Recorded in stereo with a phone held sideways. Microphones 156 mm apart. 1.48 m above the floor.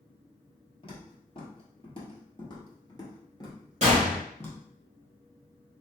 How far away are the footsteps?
About 2.0 m.